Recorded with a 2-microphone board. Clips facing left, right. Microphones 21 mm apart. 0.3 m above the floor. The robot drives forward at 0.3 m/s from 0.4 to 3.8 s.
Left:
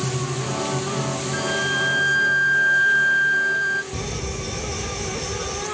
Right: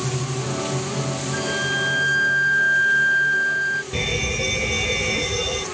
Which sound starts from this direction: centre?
A flute, at 1.3 s.